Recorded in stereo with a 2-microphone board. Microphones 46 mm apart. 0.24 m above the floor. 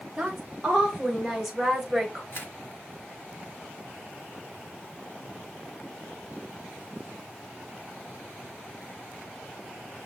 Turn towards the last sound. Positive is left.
turn(degrees=50)  # may be behind; listen again after turning